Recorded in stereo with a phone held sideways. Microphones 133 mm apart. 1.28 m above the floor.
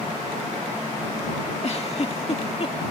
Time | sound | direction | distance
1.6 | a giggle | 50° left (ahead or behind) | ?